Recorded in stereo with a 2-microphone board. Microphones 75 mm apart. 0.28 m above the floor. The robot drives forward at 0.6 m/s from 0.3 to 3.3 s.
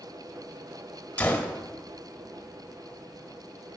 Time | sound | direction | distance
1.2 | a gunshot | 20° left (ahead or behind) | 1.4 m